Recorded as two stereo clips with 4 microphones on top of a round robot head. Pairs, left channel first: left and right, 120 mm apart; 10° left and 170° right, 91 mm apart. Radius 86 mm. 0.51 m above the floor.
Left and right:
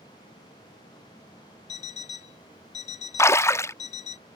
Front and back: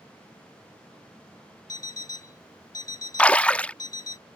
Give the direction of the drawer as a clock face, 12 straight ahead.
No drawer in this recording.